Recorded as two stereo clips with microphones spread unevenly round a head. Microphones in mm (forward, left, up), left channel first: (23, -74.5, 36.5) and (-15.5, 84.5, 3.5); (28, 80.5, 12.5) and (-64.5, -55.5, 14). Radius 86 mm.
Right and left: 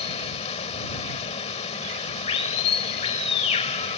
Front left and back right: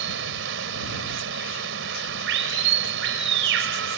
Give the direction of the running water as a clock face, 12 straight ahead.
4 o'clock.